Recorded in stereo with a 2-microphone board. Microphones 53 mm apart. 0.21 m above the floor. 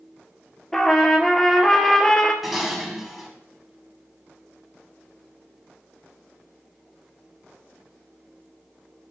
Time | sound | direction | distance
0.7 | a trumpet | 5° left (ahead or behind) | 0.6 m
2.4 | dishes clattering | 5° right (ahead or behind) | 0.9 m